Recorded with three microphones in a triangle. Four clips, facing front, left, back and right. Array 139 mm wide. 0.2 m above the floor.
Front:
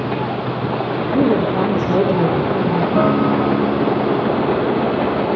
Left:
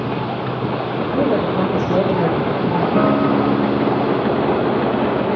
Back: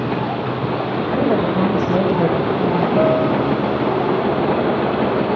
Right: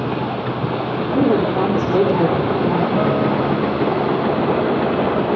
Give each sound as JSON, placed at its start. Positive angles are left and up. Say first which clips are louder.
{"t": 1.1, "sound": "a woman speaking", "louder": "right 2 dB, front 2 dB", "azimuth_deg": -35, "distance_m": 5.0}
{"t": 3.0, "sound": "a guitar", "louder": "left 2 dB, front 1 dB", "azimuth_deg": 45, "distance_m": 1.6}